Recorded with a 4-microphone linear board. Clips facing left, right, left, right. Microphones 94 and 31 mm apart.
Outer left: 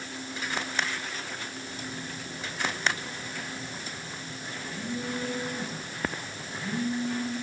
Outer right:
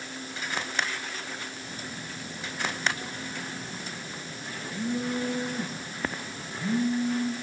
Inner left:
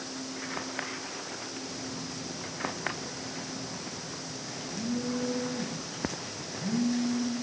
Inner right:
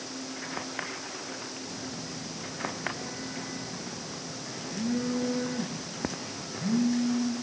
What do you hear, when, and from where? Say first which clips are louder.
1.6 s a phone buzzing: outer left 1 dB, even; 50° right (ahead or behind), 7 m